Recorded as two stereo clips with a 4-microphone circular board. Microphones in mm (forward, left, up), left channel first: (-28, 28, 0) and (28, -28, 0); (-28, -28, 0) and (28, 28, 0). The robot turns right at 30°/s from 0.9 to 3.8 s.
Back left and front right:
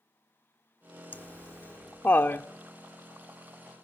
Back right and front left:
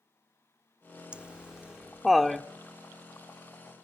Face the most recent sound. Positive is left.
turn(degrees=-175)